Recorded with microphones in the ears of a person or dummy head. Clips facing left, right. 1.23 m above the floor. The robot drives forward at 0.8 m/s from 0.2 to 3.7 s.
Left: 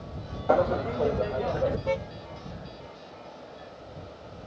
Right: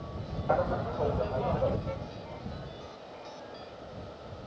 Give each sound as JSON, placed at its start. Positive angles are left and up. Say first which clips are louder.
{"t": 0.5, "sound": "laughter", "louder": "left 6 dB", "side_deg": 50}
{"t": 1.9, "sound": "a car horn", "louder": "left 9 dB", "side_deg": 85}